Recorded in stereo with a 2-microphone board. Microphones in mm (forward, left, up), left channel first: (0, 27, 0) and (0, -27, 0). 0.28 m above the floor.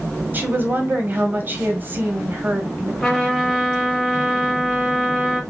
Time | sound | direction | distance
0.3 | a woman speaking | 35° right (ahead or behind) | 1.3 m
3.0 | a trumpet | 10° left (ahead or behind) | 1.8 m